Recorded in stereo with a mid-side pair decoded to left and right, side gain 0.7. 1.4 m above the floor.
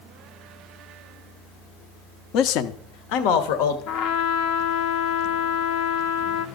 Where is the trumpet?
65° left, 0.9 m.